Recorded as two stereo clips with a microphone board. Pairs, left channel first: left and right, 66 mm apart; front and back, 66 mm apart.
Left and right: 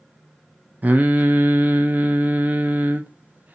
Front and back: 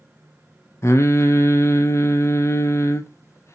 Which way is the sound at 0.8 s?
30° right.